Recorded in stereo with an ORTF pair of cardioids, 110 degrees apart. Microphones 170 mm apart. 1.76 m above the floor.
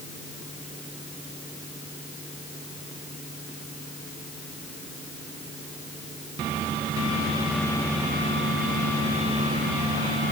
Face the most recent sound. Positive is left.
No sound to turn to.